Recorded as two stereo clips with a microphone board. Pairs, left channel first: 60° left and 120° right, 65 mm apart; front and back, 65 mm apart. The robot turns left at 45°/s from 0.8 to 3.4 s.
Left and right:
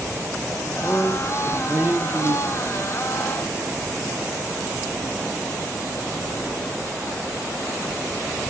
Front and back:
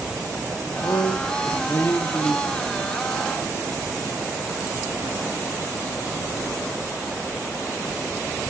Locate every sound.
0.6 s a man speaking: 5° right, 1.8 m; by 2.7 s 90° right, 1.8 m